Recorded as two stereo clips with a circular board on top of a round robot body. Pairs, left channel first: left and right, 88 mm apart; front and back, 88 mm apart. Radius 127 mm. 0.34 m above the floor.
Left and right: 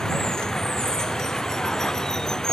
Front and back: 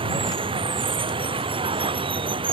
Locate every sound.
0.0 s running water: 175° left